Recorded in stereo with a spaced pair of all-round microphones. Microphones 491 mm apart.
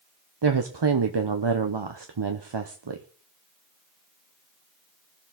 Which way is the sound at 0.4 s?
55° right (ahead or behind).